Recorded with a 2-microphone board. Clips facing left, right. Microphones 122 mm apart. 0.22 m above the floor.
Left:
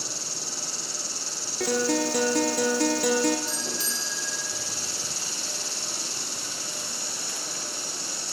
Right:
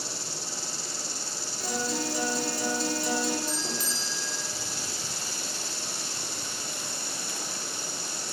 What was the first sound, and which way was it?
An insect, 80° left.